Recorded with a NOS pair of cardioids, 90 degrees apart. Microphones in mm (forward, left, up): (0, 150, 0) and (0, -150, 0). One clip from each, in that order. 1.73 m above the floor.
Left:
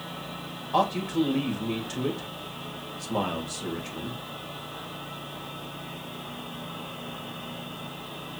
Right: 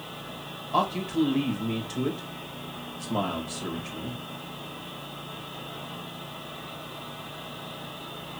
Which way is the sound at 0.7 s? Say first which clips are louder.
Left 1 dB; 5° left.